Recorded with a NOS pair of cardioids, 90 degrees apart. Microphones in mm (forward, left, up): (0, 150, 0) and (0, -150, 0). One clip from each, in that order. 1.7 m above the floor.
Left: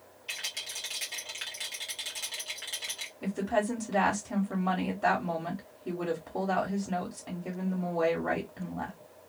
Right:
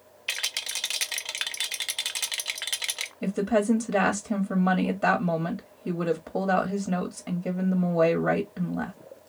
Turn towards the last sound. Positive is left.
turn(degrees=-35)